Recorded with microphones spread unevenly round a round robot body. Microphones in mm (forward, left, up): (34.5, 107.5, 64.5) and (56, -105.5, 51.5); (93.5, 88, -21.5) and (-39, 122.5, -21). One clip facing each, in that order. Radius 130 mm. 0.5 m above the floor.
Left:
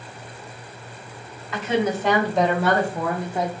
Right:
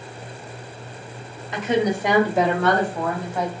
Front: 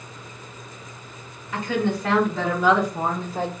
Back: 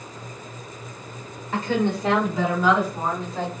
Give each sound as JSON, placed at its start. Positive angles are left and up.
{"t": 1.5, "sound": "a woman speaking", "azimuth_deg": -150, "distance_m": 1.9}